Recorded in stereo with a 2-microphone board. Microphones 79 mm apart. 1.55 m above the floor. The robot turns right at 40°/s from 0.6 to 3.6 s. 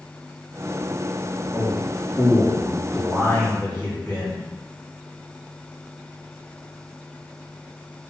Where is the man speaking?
65° right, 0.9 m; by 4.4 s 20° left, 0.9 m.